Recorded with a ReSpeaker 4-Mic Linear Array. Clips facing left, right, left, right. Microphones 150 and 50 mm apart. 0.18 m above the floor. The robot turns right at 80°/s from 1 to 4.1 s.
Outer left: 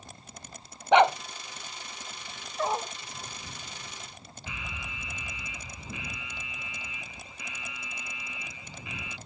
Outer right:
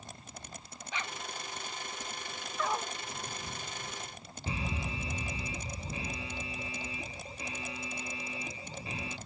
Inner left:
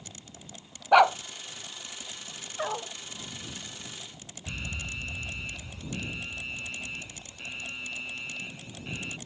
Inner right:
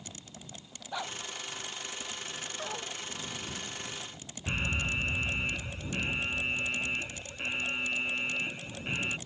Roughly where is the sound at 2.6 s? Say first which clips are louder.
Outer left 4 dB, inner left 8 dB; left.